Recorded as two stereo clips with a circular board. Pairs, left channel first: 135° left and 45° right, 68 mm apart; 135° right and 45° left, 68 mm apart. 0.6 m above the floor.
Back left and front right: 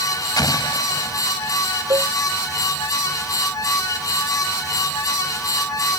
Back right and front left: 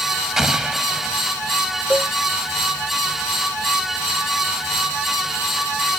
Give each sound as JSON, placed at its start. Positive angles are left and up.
{"t": 0.4, "sound": "an explosion", "azimuth_deg": 125}
{"t": 1.9, "sound": "a cowbell", "azimuth_deg": -65}